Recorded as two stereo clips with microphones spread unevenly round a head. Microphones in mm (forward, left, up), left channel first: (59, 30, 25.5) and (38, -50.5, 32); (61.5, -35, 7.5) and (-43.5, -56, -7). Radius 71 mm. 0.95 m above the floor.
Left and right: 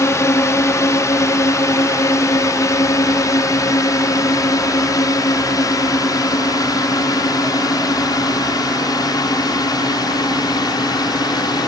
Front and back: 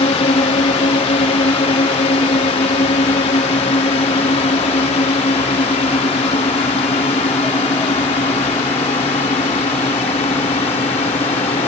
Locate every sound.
0.0 s a drone: 30° left; by 11.7 s 45° left